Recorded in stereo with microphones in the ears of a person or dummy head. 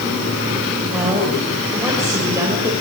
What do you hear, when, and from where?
0.9 s a woman speaking: 10° right (ahead or behind), 5 m; by 2.7 s 20° right (ahead or behind), 4 m